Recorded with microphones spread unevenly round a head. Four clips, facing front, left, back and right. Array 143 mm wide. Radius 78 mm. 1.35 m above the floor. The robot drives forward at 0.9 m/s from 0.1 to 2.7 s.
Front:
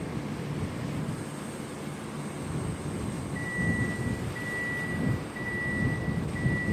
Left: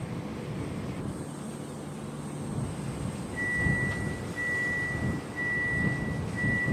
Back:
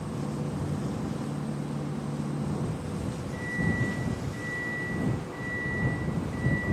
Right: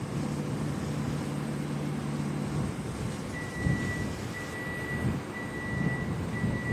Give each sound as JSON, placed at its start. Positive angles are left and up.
{"t": 3.3, "sound": "a microwave", "azimuth_deg": -105, "distance_m": 8.5}